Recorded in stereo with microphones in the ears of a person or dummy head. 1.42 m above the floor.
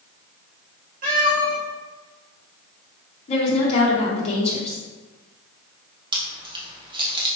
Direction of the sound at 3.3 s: 40° left (ahead or behind).